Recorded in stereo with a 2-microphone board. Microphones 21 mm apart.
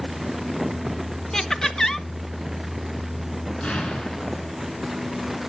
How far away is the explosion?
About 4 m.